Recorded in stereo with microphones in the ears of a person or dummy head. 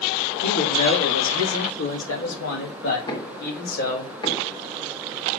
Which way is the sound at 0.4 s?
75° left (ahead or behind).